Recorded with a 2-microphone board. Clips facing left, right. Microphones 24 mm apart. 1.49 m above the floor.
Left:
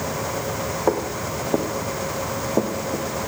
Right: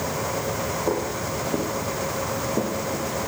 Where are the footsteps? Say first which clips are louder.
Left 6 dB; 75° left (ahead or behind), 6 m; by 3.1 s 60° left (ahead or behind), 4 m.